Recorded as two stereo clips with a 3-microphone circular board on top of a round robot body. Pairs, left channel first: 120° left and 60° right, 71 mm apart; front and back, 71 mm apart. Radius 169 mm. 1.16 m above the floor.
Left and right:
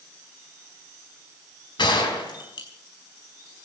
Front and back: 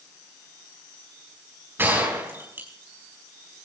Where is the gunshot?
115° left, 4.5 m.